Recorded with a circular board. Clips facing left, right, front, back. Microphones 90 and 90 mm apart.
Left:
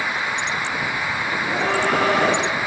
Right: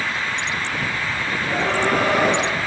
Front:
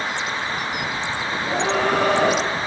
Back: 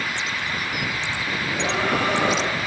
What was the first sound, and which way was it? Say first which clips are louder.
A scream: right 1 dB, front 4 dB; 5° right.